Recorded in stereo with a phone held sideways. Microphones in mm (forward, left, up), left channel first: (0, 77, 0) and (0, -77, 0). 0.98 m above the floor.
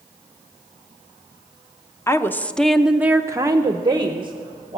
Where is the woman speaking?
20° left (ahead or behind), 0.7 m; by 4.8 s 30° right (ahead or behind), 1.2 m.